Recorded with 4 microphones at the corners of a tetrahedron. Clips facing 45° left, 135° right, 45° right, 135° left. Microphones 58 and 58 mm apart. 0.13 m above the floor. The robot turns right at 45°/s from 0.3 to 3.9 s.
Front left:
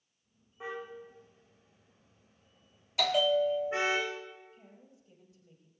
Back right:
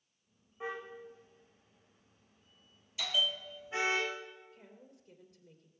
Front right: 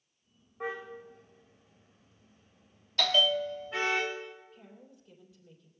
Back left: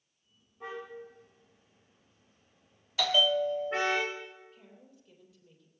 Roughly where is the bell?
Ahead left.